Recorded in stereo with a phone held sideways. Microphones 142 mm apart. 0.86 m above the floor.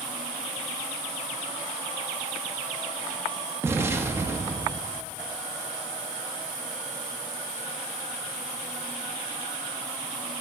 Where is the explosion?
20° right (ahead or behind), 0.7 m.